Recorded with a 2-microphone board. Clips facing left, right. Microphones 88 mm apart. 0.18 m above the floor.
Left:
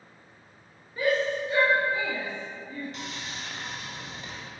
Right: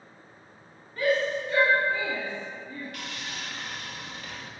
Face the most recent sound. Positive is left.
turn(degrees=25)  # may be behind; listen again after turning